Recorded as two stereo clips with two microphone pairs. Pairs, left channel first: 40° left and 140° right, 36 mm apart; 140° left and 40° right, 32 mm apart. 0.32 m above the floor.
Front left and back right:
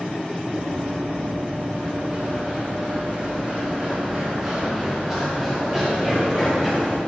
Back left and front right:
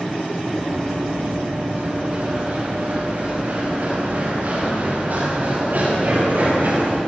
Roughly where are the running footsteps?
Right.